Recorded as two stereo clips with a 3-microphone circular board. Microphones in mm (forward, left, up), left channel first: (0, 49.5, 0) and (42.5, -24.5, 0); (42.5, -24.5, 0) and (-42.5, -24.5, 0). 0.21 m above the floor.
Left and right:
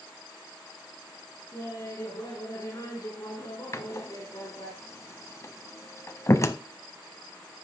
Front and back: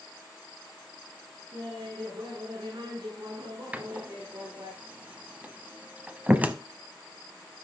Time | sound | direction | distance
1.5 | laughter | 165° left | 7 m
3.7 | a door slam | 120° left | 0.7 m